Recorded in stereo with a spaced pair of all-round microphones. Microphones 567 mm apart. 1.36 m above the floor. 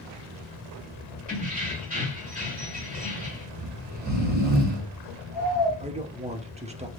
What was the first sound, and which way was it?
Keys jangling, 15° right (ahead or behind).